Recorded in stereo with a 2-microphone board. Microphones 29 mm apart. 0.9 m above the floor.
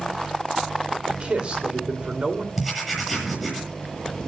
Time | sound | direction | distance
1.1 | a man speaking | 35° right (ahead or behind) | 2.5 m
2.6 | writing | 5° right (ahead or behind) | 7 m